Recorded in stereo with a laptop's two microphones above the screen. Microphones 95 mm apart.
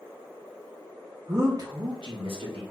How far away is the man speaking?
About 0.5 m.